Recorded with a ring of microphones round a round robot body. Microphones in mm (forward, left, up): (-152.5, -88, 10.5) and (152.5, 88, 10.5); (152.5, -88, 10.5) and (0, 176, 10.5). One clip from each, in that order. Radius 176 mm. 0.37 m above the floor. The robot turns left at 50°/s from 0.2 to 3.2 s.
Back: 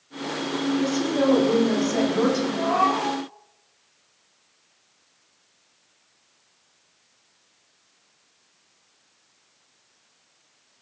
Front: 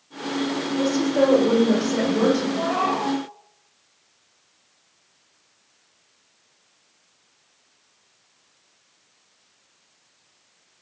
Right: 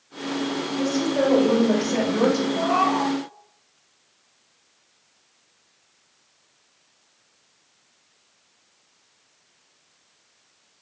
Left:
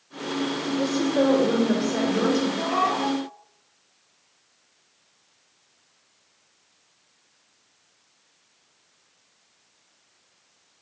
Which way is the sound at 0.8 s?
30° left.